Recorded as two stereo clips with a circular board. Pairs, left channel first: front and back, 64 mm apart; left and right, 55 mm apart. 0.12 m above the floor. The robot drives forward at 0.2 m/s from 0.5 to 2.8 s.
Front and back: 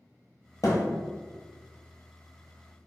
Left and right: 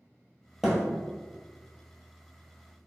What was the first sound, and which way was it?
A thud, 10° right.